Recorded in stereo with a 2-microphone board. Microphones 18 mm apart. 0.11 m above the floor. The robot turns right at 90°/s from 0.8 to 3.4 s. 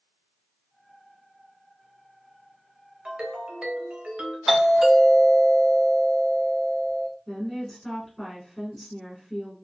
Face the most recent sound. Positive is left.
turn(degrees=20)  # may be behind; listen again after turning